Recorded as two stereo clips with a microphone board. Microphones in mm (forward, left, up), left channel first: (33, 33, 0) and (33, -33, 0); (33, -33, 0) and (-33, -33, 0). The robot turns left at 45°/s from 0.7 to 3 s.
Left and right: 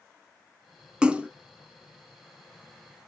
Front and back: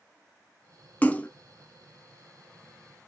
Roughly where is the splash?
Ahead right.